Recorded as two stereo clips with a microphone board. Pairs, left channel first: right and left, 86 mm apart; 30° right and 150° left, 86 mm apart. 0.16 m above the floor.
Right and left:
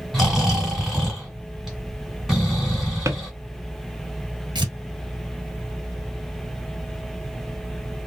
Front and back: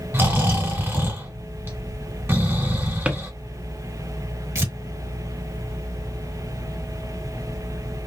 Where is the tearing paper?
100° left, 1.1 m.